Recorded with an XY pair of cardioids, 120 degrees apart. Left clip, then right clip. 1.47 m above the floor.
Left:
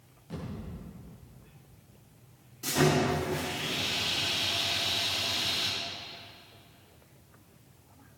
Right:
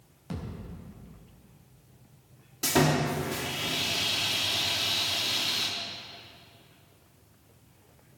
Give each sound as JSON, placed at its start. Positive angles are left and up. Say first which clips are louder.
{"t": 0.3, "sound": "a thud", "louder": "right 1 dB", "azimuth_deg": -60, "distance_m": 5.0}
{"t": 2.6, "sound": "sawing", "louder": "right 1 dB", "azimuth_deg": -65, "distance_m": 3.0}